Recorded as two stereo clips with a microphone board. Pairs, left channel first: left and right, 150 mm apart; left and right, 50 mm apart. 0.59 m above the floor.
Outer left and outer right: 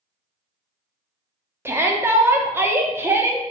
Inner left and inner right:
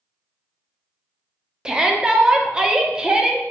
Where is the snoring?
I don't hear snoring.